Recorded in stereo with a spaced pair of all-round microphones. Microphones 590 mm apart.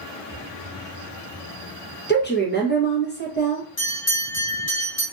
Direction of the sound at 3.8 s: 20° left (ahead or behind).